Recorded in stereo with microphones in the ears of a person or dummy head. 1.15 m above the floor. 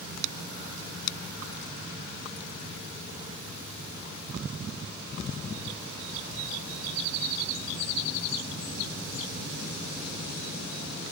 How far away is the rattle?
No rattle in this recording.